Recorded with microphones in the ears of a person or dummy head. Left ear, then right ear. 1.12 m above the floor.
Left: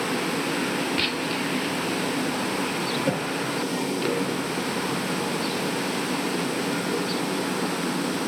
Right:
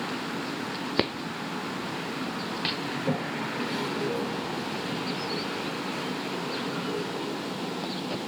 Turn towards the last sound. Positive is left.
turn(degrees=35)  # may be behind; listen again after turning